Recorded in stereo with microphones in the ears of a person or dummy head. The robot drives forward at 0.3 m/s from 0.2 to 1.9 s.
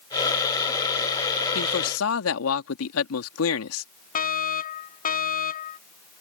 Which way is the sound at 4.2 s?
45° left (ahead or behind).